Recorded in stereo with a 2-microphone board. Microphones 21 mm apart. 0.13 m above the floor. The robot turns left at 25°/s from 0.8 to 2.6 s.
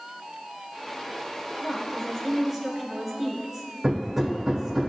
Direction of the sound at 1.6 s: 30° right (ahead or behind).